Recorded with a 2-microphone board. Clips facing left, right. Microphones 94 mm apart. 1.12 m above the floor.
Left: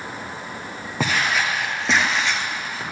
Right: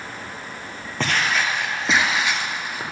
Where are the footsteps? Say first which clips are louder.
Even; 10° left (ahead or behind), 1.7 m; by 2.8 s 15° right (ahead or behind), 1.5 m.